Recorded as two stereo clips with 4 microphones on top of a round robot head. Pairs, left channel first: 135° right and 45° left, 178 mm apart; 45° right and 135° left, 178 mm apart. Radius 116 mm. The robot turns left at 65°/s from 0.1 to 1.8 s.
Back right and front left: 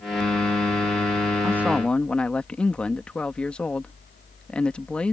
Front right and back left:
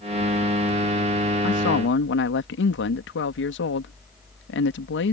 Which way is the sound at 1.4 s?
25° right.